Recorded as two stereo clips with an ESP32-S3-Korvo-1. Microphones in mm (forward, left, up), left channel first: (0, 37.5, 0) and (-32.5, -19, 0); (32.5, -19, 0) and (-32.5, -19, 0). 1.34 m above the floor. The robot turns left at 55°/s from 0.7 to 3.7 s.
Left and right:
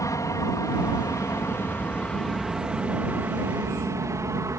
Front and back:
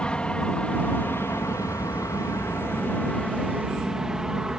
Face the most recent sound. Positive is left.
turn(degrees=-100)